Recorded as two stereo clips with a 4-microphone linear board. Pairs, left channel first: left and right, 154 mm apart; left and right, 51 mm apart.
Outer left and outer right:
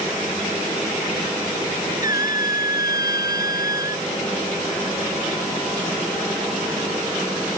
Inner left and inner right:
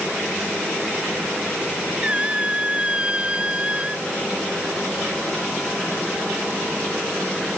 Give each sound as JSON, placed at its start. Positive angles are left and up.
{"t": 2.0, "sound": "a squeak", "side_deg": -25}